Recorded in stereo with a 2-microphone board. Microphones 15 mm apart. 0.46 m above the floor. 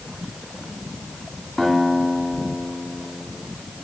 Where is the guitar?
15° left (ahead or behind), 2 m.